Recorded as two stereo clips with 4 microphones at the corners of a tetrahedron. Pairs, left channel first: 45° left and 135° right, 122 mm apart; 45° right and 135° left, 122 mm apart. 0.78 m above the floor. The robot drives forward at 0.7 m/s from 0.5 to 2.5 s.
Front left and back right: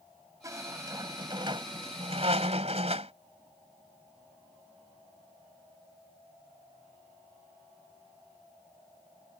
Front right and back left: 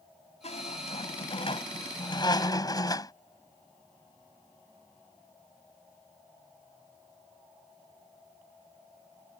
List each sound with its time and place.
0.4 s a squeak: 70° right; by 3.1 s 100° right